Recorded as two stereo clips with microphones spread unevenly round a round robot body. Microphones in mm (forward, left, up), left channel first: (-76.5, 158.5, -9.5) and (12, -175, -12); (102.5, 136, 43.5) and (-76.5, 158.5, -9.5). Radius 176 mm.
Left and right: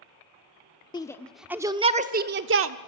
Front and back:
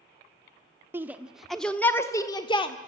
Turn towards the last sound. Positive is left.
turn(degrees=-80)